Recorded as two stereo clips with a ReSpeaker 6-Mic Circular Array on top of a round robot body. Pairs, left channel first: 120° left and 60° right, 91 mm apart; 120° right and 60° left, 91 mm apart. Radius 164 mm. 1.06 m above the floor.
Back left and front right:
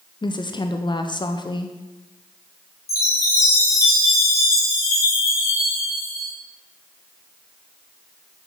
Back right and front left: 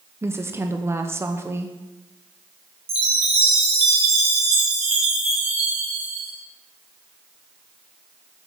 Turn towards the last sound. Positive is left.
turn(degrees=60)